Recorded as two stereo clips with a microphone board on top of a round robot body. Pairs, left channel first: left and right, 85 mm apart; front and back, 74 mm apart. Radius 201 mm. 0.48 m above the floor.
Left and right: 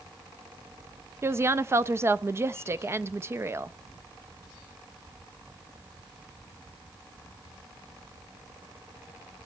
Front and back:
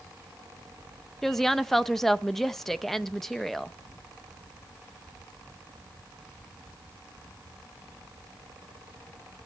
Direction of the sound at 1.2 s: 80° right.